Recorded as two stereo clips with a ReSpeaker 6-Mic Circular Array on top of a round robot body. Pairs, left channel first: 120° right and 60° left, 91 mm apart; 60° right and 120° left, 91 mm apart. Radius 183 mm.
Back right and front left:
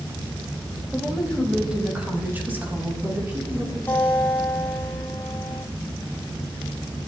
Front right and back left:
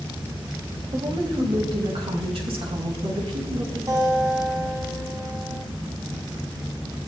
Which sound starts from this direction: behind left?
A woman speaking, at 0.9 s.